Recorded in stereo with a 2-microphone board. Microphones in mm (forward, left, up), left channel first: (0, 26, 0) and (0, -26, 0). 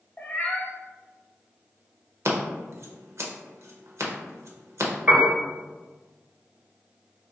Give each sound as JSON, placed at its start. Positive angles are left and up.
{"t": 0.2, "sound": "a cat meowing", "side_deg": 35, "distance_m": 0.9}
{"t": 2.2, "sound": "scissors", "side_deg": -65, "distance_m": 0.7}
{"t": 5.1, "sound": "a piano", "side_deg": -15, "distance_m": 1.0}